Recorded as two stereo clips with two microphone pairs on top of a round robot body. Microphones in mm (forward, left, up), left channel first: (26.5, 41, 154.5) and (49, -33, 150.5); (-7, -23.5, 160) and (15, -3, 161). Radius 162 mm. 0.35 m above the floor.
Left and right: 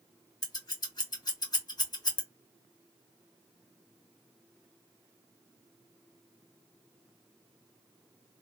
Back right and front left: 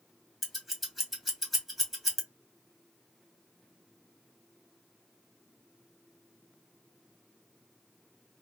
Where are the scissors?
135° left, 1.7 m.